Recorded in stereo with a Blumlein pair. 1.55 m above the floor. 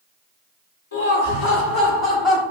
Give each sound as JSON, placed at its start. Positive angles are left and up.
{"t": 0.9, "sound": "laughter", "azimuth_deg": 65, "distance_m": 1.1}